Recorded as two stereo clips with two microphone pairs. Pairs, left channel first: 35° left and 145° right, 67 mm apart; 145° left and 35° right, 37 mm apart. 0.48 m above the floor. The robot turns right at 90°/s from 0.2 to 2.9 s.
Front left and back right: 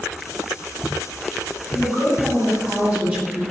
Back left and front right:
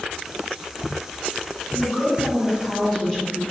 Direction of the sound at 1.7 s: 85° left.